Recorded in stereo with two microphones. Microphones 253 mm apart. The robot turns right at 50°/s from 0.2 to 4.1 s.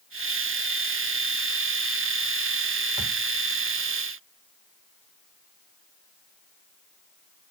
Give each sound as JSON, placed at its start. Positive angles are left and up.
{"t": 3.0, "sound": "a thud", "side_deg": -15, "distance_m": 4.0}